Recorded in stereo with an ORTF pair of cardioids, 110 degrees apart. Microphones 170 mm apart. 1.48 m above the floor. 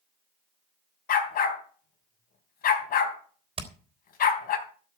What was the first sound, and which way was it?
A dog barking, 60° left.